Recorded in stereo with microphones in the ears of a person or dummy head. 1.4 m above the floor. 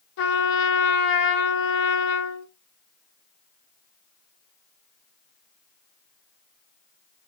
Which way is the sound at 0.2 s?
65° left (ahead or behind).